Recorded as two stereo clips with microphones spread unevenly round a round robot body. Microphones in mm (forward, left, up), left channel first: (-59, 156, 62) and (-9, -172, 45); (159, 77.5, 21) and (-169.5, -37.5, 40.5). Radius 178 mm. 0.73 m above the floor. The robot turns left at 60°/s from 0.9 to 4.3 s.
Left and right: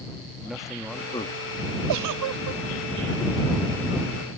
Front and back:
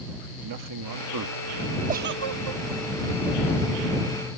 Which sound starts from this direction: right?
A giggle, at 1.9 s.